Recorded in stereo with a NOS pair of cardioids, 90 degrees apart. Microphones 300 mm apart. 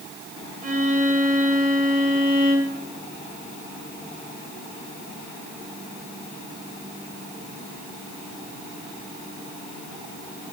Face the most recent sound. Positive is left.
turn(degrees=-25)